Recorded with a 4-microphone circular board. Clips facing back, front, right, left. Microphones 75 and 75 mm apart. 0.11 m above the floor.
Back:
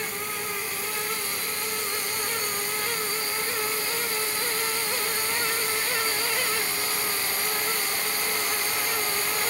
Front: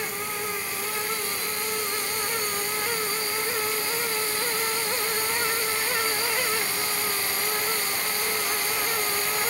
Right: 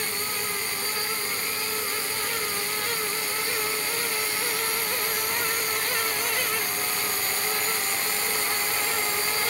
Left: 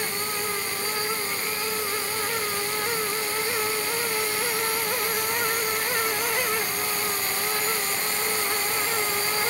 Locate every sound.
Only background noise.